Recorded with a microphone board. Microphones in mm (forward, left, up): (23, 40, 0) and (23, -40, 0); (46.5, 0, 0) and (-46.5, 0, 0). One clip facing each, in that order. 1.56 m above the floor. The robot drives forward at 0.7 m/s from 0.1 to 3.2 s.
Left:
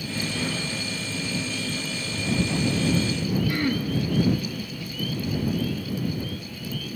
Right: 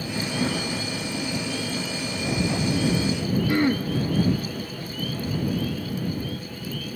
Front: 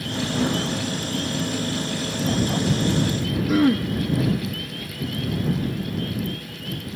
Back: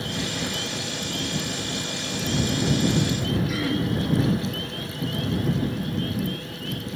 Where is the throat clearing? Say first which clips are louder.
Right 4 dB, front 7 dB; 30° right, 1.4 m.